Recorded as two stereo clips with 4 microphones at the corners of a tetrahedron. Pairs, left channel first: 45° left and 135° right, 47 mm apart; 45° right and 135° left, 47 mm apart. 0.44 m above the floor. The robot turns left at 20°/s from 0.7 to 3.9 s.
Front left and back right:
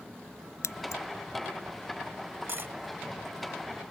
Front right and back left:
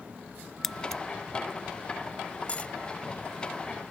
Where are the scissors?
40° left; by 1.0 s 35° left.